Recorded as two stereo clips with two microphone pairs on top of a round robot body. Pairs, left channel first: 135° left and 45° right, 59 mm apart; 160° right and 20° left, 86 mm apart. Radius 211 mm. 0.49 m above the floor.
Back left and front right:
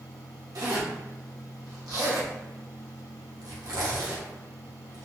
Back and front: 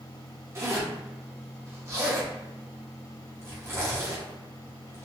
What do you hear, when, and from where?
0.6 s a zipper: 40° right, 1.2 m